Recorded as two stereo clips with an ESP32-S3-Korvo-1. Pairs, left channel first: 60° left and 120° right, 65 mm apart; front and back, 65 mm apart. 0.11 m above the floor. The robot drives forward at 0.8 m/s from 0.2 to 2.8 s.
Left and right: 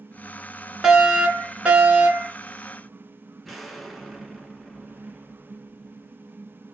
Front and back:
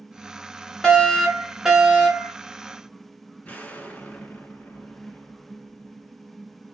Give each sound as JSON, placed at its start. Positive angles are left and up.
{"t": 0.8, "sound": "a fire alarm", "azimuth_deg": -55, "distance_m": 2.0}
{"t": 3.4, "sound": "an explosion", "azimuth_deg": -20, "distance_m": 1.5}